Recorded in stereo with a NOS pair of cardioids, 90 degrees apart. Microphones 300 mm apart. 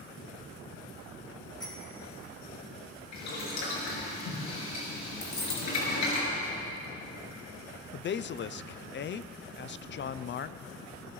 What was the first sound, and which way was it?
A bicycle bell, 15° left.